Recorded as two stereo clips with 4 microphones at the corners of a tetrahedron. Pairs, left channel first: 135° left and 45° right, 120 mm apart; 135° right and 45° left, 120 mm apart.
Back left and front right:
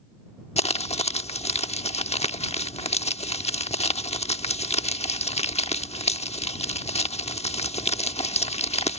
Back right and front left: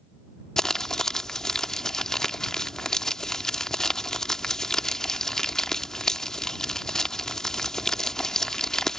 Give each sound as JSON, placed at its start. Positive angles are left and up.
{"t": 0.6, "sound": "crumpling", "azimuth_deg": 140}